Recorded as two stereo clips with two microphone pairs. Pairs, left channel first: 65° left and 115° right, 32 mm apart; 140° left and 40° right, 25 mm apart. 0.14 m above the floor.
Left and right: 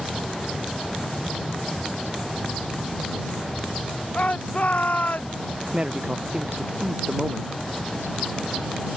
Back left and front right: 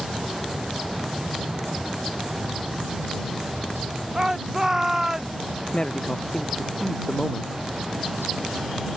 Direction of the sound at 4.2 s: 25° left.